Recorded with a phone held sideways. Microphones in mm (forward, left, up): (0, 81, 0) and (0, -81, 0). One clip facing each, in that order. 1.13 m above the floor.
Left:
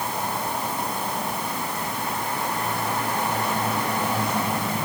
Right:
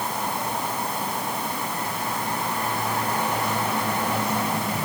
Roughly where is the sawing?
I don't hear sawing.